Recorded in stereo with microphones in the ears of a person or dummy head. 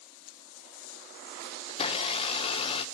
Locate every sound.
1.7 s a blender: 25° left (ahead or behind), 1.2 m